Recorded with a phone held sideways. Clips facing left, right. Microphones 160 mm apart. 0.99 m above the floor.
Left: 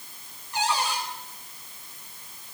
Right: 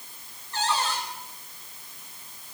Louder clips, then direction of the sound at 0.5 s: Left 1 dB; 10° left (ahead or behind).